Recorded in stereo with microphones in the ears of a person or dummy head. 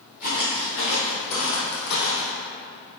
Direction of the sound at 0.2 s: 25° left (ahead or behind).